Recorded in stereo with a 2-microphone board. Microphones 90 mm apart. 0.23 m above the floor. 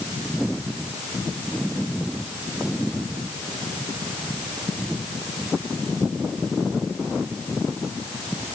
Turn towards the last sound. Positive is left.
No sound to turn to.